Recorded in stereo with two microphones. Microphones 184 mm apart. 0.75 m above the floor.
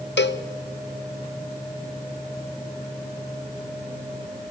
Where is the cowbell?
70° left (ahead or behind), 0.6 m.